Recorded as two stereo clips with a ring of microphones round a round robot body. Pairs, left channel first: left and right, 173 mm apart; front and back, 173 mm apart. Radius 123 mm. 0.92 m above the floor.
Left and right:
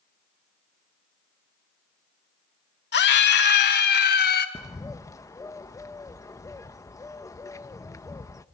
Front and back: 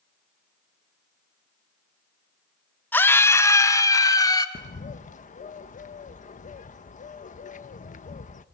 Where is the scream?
80° left, 1.9 m; by 4.5 s 70° left, 4.5 m.